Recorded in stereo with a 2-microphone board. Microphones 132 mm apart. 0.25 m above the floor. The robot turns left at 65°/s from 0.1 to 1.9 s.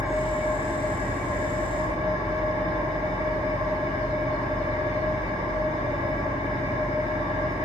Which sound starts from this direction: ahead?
An engine running, at 0.0 s.